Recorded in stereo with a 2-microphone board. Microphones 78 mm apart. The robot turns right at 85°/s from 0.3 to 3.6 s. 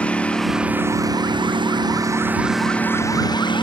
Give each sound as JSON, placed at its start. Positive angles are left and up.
{"t": 0.0, "sound": "a lawn mower", "azimuth_deg": 165}